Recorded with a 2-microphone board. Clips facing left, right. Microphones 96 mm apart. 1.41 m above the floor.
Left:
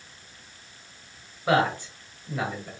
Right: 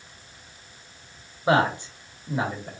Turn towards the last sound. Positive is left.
turn(degrees=-20)  # may be behind; listen again after turning